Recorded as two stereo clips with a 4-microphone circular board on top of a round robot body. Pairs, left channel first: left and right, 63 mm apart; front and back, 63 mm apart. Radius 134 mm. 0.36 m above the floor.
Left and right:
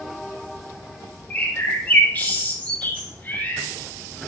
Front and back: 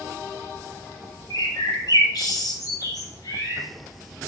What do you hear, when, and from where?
1.3 s a bird: 25° left, 3 m